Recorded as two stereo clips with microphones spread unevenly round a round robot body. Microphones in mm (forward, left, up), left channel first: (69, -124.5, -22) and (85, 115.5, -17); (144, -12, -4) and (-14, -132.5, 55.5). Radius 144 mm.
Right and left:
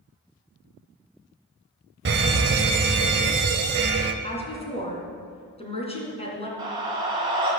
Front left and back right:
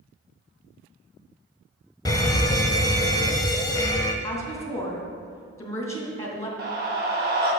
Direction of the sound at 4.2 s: 30° right.